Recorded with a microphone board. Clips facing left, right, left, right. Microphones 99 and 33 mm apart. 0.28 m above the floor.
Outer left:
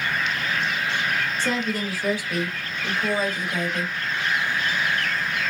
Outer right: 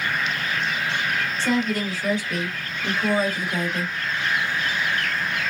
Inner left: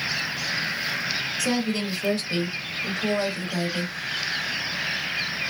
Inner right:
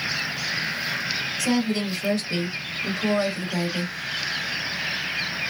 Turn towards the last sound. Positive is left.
turn(degrees=-5)  # may be behind; listen again after turning